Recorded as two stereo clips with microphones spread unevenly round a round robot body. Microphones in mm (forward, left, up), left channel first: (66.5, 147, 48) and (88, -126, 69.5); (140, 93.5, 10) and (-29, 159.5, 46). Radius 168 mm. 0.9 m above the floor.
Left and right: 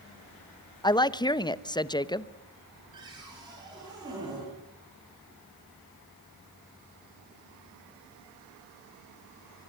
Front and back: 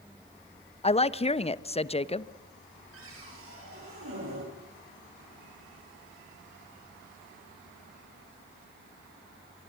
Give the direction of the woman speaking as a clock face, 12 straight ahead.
11 o'clock.